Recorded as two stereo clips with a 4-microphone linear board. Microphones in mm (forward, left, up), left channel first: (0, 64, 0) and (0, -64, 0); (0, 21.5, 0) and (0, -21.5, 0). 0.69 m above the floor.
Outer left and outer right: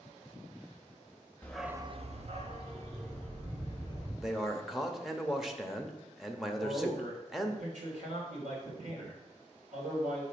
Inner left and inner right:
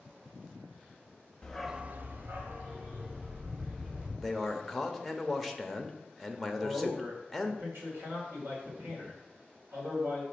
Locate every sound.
1.4 s a dog barking: 15° left (ahead or behind), 0.7 m; by 4.1 s 45° right (ahead or behind), 3 m
4.2 s a man speaking: centre (ahead or behind), 0.6 m
6.5 s a man speaking: 70° right (ahead or behind), 2.5 m